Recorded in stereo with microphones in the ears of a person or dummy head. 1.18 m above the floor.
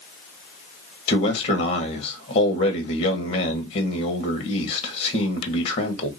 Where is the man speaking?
40° left (ahead or behind), 1.2 m.